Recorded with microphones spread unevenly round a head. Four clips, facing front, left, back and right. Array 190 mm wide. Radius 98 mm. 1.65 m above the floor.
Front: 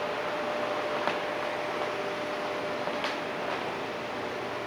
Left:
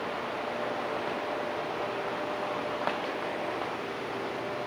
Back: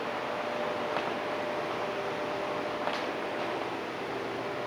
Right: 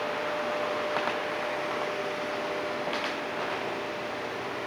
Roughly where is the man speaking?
I don't hear a man speaking.